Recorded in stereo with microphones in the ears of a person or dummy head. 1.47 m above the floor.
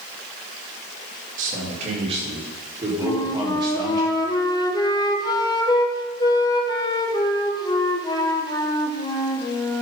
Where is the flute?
20° left (ahead or behind), 1.1 m.